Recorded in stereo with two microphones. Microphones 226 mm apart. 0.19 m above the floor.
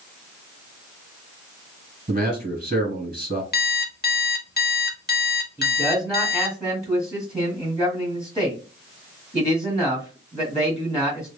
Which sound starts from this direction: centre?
A man speaking, at 5.6 s.